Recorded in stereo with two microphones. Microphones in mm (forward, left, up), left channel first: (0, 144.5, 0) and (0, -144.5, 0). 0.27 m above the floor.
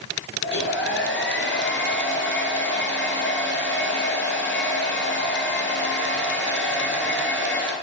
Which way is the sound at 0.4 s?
35° left (ahead or behind).